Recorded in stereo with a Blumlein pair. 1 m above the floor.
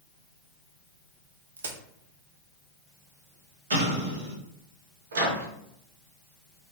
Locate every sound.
1.6 s a crack: 70° right, 0.5 m
3.7 s an explosion: 65° right, 0.9 m
5.1 s a microwave: 65° right, 0.7 m